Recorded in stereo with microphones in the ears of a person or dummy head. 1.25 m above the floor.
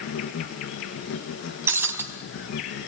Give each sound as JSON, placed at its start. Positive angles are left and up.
{"t": 0.0, "sound": "an insect", "side_deg": 60, "distance_m": 3.5}
{"t": 1.7, "sound": "breaking glass", "side_deg": -15, "distance_m": 4.0}